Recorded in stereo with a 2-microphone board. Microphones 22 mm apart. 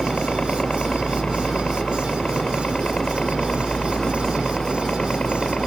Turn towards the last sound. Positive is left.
turn(degrees=40)  # may be behind; listen again after turning